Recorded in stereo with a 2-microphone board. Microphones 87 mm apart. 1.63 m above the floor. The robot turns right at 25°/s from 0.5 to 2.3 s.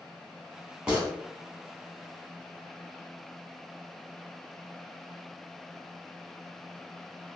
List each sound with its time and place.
0.9 s a gunshot: 5° right (ahead or behind), 1.2 m